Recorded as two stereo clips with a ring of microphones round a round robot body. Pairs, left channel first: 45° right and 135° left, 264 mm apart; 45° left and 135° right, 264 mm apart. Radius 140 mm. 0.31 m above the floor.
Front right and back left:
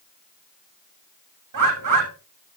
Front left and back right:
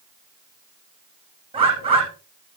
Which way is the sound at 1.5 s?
155° left.